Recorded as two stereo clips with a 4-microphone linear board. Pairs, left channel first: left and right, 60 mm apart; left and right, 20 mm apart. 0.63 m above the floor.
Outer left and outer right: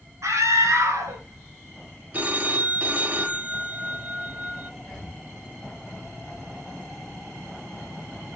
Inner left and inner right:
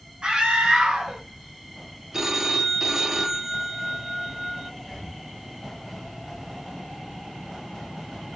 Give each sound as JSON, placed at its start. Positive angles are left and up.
{"t": 0.2, "sound": "a scream", "side_deg": -55, "distance_m": 1.2}
{"t": 2.1, "sound": "a phone ringing", "side_deg": -25, "distance_m": 0.7}
{"t": 4.8, "sound": "breathing", "side_deg": 0, "distance_m": 1.3}